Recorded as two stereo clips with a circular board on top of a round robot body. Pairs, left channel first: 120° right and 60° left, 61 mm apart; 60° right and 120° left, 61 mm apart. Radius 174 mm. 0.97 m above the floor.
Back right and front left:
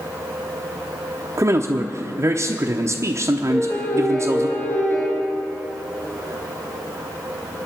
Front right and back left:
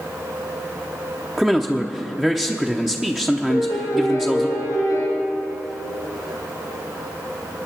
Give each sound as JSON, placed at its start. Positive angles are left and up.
{"t": 1.4, "sound": "a man speaking", "azimuth_deg": 40, "distance_m": 0.9}
{"t": 3.5, "sound": "a piano", "azimuth_deg": -70, "distance_m": 4.5}